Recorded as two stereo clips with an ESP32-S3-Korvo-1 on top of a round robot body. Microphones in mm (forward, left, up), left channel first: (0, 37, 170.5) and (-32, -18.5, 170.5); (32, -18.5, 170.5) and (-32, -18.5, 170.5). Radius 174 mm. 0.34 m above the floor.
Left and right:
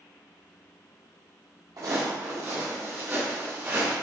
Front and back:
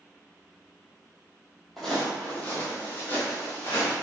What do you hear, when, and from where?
1.8 s footsteps: 85° right, 1.1 m; by 3.9 s 55° right, 2 m